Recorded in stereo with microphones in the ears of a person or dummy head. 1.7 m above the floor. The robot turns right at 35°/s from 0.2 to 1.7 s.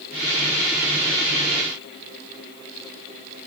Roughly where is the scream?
No scream in this recording.